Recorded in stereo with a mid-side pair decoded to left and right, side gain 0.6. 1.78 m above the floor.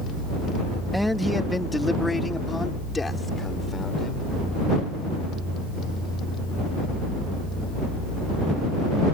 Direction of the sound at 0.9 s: Straight ahead.